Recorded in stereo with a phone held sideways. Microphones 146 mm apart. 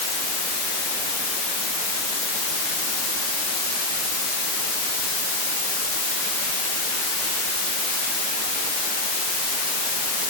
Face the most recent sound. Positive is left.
No sound to turn to.